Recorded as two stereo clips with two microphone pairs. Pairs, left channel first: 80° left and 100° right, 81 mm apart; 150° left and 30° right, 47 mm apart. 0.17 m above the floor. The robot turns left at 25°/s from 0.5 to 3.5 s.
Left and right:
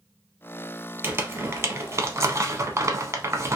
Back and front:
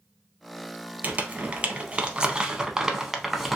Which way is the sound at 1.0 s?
55° right.